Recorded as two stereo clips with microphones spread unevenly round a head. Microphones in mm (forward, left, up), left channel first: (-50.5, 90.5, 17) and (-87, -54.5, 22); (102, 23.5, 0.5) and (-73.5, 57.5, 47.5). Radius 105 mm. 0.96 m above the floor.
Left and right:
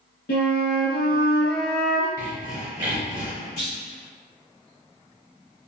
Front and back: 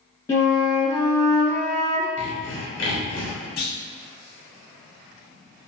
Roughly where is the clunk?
Ahead left.